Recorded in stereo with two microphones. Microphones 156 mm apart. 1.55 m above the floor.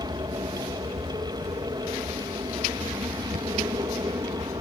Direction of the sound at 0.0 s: 30° right (ahead or behind).